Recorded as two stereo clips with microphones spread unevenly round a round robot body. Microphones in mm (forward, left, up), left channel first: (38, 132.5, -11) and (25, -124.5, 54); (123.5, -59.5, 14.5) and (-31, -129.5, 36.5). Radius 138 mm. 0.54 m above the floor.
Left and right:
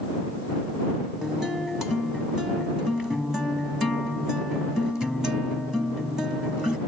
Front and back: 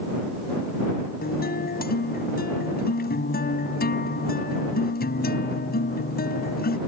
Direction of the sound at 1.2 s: 5° right.